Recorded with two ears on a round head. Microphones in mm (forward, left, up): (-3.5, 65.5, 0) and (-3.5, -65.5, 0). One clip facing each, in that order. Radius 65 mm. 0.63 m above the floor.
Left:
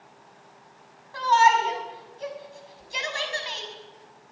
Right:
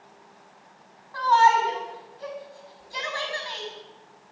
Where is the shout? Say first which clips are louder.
Right 1 dB; 25° left (ahead or behind), 6 m.